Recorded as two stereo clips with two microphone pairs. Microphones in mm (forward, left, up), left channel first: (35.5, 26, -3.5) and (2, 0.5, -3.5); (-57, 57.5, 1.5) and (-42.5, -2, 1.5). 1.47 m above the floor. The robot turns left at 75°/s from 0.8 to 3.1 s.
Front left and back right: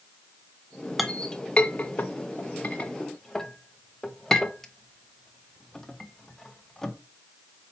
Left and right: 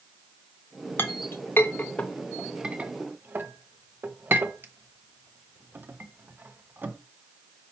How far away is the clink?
About 0.7 m.